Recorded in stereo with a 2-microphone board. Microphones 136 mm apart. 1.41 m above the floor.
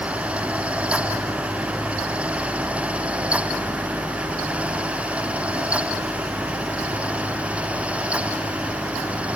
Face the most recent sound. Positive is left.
No sound to turn to.